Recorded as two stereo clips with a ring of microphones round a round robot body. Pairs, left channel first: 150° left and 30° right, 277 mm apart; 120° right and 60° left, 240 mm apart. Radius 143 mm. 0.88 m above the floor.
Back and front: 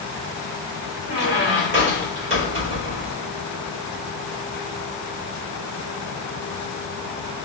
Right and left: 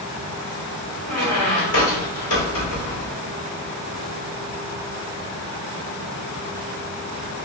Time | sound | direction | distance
1.1 | a squeak | 80° right | 1.4 m